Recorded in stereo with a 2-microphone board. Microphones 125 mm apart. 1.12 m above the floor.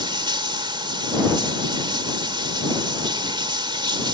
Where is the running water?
40° right (ahead or behind).